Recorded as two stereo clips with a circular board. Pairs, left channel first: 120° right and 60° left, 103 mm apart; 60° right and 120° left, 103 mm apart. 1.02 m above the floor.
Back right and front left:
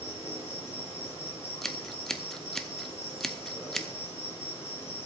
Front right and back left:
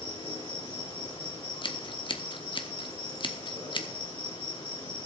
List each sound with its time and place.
0.0 s an insect: 60° right, 7 m
1.6 s scissors: 35° right, 0.8 m